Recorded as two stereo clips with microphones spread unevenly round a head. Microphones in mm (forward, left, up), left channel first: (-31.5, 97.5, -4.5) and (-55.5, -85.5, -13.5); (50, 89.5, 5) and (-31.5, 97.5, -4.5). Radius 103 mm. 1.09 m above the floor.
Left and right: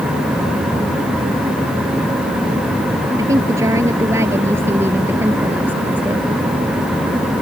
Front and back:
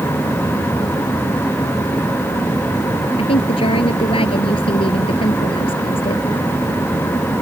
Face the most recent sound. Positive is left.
turn(degrees=-15)